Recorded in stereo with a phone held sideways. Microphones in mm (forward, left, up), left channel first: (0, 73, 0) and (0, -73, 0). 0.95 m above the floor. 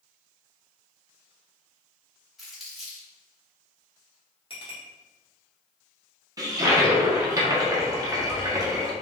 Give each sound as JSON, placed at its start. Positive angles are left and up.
{"t": 2.4, "sound": "crumpling", "side_deg": 0, "distance_m": 1.5}
{"t": 4.5, "sound": "a clink", "side_deg": 35, "distance_m": 1.4}
{"t": 6.4, "sound": "a toilet flushing", "side_deg": -25, "distance_m": 0.7}